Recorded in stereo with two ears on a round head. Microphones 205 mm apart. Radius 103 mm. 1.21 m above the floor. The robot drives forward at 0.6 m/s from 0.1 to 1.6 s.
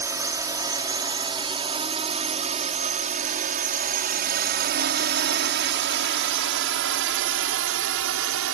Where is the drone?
15° right (ahead or behind); by 8.6 s 65° right (ahead or behind).